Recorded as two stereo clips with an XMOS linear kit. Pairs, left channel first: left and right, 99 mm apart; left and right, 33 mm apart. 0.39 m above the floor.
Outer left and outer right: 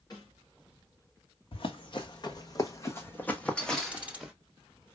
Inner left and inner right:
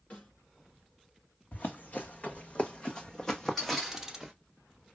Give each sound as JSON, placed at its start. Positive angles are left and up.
{"t": 0.1, "sound": "a snare drum", "side_deg": 40, "distance_m": 3.5}
{"t": 1.5, "sound": "running footsteps", "side_deg": 60, "distance_m": 1.3}
{"t": 3.9, "sound": "ticking", "side_deg": -15, "distance_m": 1.1}